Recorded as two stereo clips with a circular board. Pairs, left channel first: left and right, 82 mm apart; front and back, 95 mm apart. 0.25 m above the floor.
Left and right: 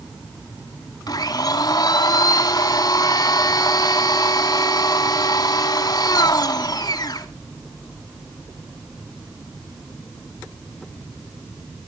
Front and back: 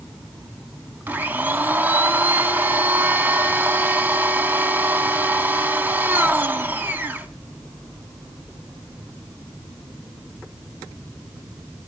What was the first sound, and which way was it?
A blender, 115° left.